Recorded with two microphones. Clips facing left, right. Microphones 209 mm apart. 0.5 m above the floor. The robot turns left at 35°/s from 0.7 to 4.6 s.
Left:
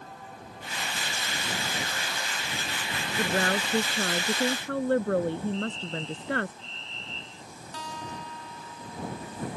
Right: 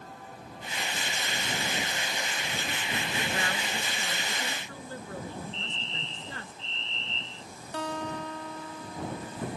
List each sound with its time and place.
3.2 s a woman speaking: 135° left; by 6.5 s 85° left
5.5 s a fire alarm: 30° right (ahead or behind)
7.7 s a guitar: 70° right (ahead or behind)